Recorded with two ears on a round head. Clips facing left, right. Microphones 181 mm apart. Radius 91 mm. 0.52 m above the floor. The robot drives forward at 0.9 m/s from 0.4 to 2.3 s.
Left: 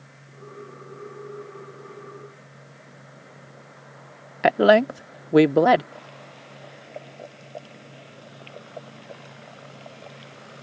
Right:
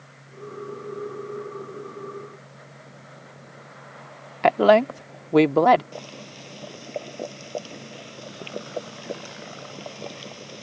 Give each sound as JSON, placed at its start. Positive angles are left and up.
{"t": 4.4, "sound": "a woman speaking", "side_deg": 10}
{"t": 5.9, "sound": "boiling", "side_deg": -60}